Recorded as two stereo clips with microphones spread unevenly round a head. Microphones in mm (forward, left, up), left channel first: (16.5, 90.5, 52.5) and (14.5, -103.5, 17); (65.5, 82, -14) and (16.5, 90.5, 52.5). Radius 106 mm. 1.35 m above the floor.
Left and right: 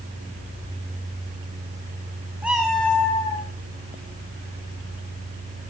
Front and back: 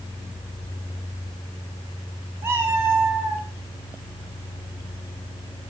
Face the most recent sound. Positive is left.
turn(degrees=155)